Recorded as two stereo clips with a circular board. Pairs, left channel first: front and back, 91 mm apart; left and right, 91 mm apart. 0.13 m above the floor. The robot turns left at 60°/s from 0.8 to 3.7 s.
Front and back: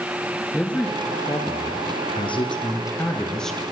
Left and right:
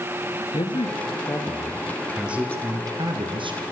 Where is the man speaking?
75° left, 3 m; by 3.6 s 90° right, 3 m.